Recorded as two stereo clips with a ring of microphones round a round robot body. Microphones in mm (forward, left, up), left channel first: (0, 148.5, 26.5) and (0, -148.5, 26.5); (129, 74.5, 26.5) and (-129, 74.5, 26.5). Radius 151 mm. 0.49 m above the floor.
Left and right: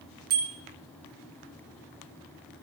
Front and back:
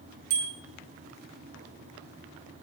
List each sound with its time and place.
0.3 s a bicycle bell: 150° right, 5 m